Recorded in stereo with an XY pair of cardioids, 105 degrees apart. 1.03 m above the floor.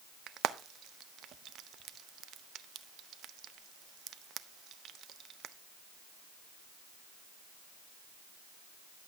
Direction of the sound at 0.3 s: 65° right.